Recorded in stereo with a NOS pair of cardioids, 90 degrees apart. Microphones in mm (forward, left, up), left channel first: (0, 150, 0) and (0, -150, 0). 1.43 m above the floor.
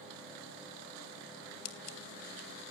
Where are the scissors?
65° left, 2.5 m.